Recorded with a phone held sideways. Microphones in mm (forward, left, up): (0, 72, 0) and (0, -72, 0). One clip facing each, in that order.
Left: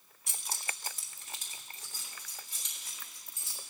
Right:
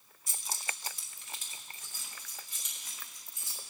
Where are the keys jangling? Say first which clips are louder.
Even; 65° left (ahead or behind), 1.1 m; by 3.6 s 25° left (ahead or behind), 5 m.